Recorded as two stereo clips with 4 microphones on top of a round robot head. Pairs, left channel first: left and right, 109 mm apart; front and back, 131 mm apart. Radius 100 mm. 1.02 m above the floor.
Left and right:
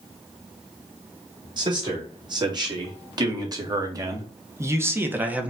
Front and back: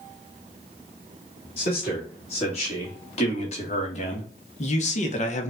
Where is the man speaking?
45° right, 2.5 m; by 5.5 s 15° right, 1.1 m.